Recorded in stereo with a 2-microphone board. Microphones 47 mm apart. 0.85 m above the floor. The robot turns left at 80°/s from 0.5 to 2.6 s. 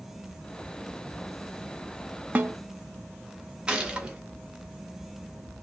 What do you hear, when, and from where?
2.4 s a snare drum: 35° right (ahead or behind), 0.5 m; by 2.6 s 50° right (ahead or behind), 0.5 m
3.7 s a gunshot: 20° right (ahead or behind), 0.7 m